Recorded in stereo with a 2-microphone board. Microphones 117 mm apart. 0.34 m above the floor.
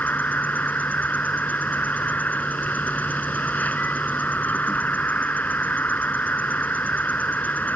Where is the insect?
15° left (ahead or behind).